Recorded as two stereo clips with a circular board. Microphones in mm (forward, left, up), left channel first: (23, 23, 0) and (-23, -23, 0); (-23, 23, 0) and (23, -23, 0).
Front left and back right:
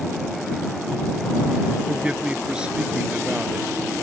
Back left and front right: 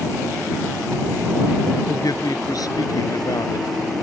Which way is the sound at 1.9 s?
150° left.